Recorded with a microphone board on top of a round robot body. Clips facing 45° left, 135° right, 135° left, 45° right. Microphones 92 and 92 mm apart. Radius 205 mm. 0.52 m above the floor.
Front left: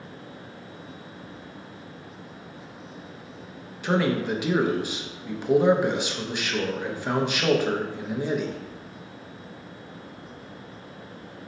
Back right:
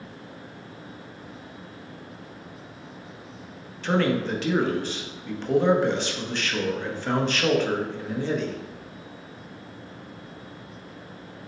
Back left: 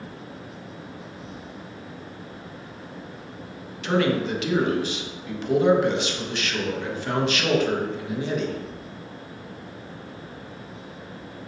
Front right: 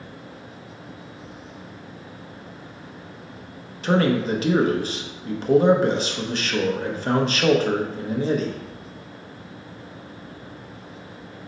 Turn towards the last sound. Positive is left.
turn(degrees=-25)